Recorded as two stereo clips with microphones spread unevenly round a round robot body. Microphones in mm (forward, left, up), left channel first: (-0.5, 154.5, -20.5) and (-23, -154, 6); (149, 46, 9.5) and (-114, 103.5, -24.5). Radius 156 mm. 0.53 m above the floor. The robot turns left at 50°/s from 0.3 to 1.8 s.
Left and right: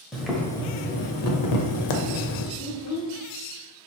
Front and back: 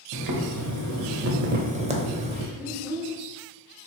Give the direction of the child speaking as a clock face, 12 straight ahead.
9 o'clock.